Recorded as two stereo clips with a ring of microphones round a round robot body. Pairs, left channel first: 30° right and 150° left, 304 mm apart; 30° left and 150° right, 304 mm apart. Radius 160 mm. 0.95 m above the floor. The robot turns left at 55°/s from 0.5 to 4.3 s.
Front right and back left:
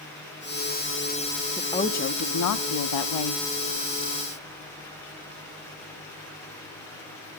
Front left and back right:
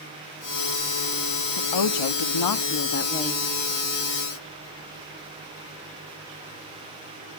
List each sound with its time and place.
1.6 s a woman speaking: 55° left, 1.3 m; by 3.4 s 50° right, 1.3 m